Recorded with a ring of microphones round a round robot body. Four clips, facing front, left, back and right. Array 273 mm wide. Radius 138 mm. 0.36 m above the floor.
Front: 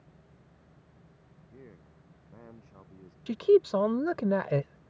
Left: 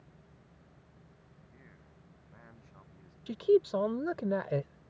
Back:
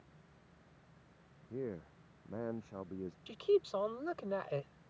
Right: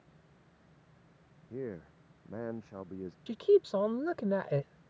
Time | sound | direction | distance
1.5 | a man speaking | 125° right | ?
3.3 | a man speaking | straight ahead | ?